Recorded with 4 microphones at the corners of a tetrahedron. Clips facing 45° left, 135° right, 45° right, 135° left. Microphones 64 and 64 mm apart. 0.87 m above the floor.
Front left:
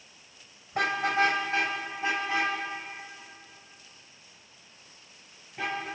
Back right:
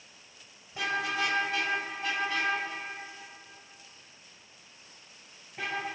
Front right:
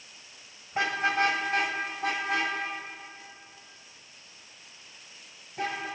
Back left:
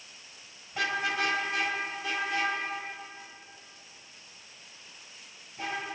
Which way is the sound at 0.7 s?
15° left.